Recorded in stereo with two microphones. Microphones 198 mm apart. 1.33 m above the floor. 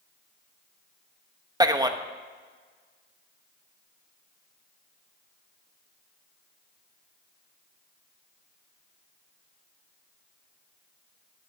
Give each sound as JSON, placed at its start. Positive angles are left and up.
{"t": 1.6, "sound": "a man speaking", "side_deg": -20, "distance_m": 0.7}